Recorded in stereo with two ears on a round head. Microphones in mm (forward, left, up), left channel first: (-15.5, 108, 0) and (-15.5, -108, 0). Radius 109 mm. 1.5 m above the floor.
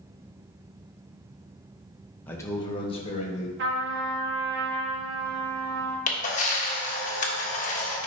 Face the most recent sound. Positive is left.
turn(degrees=30)  # may be behind; listen again after turning